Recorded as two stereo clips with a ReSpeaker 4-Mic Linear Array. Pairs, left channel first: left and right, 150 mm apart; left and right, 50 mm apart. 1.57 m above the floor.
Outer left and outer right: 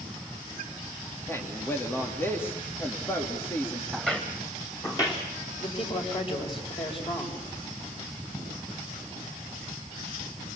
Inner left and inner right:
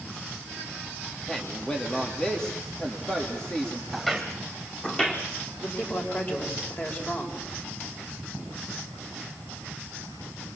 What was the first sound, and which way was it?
A man speaking, 15° left (ahead or behind).